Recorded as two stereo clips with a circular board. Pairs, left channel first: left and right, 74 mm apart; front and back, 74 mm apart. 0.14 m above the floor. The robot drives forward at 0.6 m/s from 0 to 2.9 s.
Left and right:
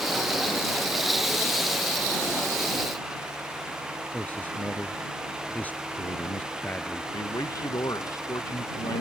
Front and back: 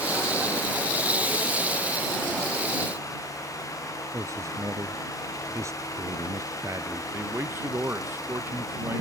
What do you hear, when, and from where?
4.1 s a man speaking: 150° left
7.1 s a man speaking: 125° left